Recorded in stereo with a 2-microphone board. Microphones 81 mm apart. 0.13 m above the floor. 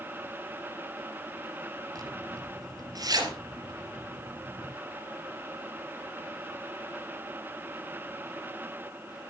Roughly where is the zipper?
Right.